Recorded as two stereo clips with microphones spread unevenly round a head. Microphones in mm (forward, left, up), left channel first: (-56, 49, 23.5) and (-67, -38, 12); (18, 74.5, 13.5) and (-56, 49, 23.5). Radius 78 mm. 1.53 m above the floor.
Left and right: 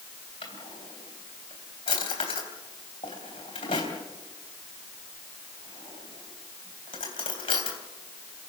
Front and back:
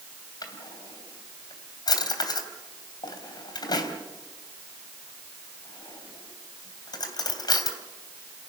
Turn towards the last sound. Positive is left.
turn(degrees=45)